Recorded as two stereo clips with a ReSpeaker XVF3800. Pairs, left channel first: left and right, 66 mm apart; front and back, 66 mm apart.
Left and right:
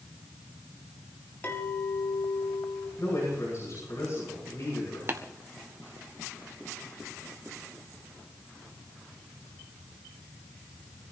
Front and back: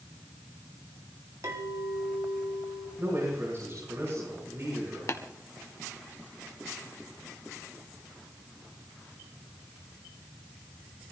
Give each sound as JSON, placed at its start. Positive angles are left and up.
{"t": 1.4, "sound": "a clink", "azimuth_deg": 150, "distance_m": 3.0}
{"t": 3.0, "sound": "a man speaking", "azimuth_deg": 130, "distance_m": 9.5}
{"t": 5.1, "sound": "tapping", "azimuth_deg": -40, "distance_m": 1.5}